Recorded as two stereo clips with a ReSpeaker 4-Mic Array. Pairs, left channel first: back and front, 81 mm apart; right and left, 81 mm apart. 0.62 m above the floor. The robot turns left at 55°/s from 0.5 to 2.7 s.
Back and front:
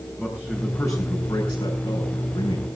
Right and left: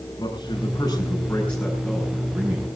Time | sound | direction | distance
0.2 | a man speaking | 110° right | 7 m